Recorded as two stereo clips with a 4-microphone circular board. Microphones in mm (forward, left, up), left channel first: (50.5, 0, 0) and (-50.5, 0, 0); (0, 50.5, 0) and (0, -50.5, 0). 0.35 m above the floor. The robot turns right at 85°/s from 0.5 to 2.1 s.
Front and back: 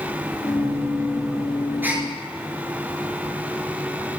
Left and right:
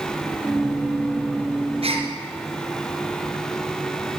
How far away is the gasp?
About 3 m.